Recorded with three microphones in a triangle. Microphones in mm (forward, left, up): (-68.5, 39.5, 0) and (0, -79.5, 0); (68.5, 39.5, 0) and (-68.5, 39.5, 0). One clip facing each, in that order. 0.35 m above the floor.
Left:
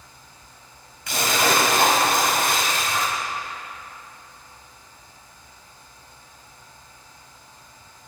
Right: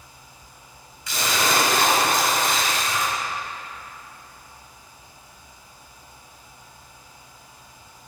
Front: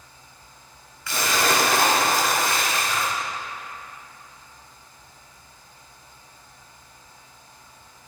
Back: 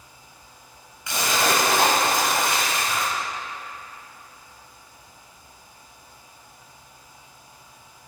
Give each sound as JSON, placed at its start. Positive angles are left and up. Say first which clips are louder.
{"t": 1.1, "sound": "a splash", "louder": "left 2 dB, even", "azimuth_deg": 115, "distance_m": 1.7}